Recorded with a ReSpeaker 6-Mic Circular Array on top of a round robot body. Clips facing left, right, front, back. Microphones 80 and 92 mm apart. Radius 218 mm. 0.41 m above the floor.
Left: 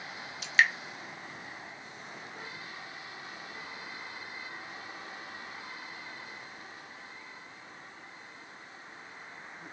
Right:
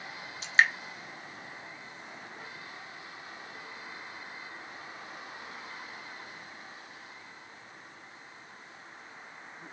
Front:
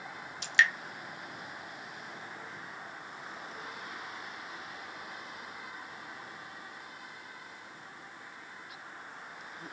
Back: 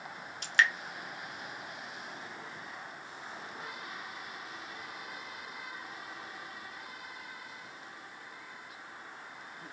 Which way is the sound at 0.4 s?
140° right.